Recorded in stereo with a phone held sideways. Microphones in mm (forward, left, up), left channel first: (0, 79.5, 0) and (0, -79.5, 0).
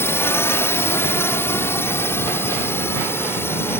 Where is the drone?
15° left (ahead or behind).